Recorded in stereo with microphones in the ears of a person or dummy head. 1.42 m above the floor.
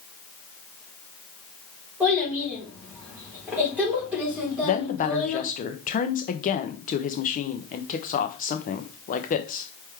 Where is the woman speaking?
40° left (ahead or behind), 0.6 m.